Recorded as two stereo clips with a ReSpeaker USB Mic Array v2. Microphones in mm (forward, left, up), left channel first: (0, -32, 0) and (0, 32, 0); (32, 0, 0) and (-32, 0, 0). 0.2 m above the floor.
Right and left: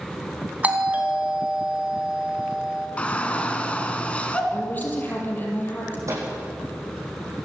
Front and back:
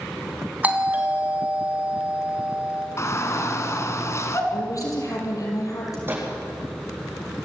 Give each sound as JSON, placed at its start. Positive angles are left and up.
{"t": 0.6, "sound": "a doorbell", "azimuth_deg": 135, "distance_m": 2.5}
{"t": 3.0, "sound": "a shout", "azimuth_deg": -25, "distance_m": 2.5}
{"t": 4.5, "sound": "a woman speaking", "azimuth_deg": -30, "distance_m": 5.0}
{"t": 6.1, "sound": "a microwave", "azimuth_deg": 125, "distance_m": 7.5}